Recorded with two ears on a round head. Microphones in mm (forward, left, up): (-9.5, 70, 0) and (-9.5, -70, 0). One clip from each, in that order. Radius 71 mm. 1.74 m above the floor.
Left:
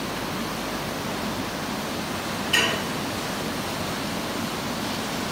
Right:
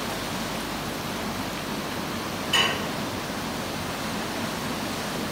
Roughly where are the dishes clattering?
Centre.